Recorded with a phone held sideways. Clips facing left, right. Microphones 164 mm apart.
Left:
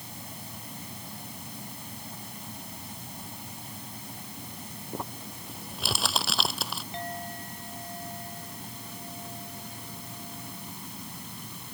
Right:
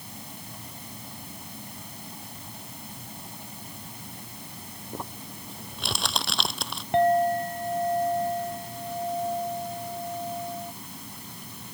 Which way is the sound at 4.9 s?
Centre (ahead or behind).